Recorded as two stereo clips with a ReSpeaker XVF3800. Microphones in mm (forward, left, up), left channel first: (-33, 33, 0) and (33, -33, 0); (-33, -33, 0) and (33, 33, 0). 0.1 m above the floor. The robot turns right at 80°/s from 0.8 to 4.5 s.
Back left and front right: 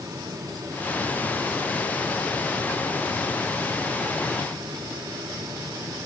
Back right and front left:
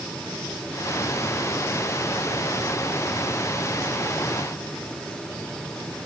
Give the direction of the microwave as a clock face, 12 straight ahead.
I don't hear a microwave.